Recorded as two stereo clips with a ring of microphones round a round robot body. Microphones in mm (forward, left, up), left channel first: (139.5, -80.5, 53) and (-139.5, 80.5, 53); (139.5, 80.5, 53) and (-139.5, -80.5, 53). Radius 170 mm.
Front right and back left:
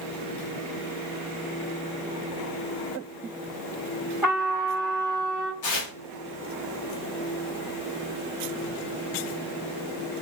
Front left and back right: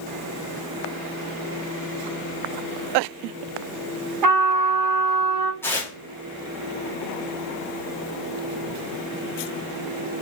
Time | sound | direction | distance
4.2 | a trumpet | 125° right | 2.5 m
5.6 | tearing paper | 50° right | 2 m